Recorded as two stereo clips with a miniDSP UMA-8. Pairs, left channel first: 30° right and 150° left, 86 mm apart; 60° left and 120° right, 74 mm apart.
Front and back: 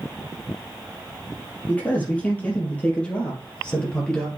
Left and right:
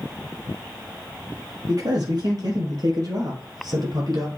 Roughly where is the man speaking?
Right.